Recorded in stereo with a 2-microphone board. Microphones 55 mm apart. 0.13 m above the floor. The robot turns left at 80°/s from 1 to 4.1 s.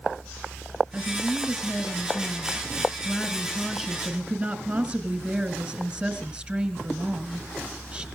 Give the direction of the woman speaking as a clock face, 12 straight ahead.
5 o'clock.